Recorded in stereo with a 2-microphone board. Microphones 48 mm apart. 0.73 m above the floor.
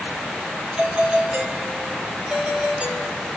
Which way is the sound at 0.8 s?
25° right (ahead or behind).